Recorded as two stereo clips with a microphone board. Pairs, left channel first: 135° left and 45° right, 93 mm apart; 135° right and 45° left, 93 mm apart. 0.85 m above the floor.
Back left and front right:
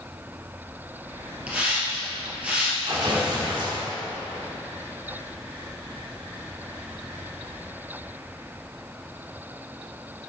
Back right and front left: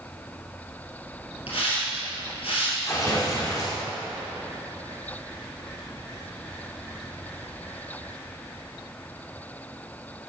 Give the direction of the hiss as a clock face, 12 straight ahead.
4 o'clock.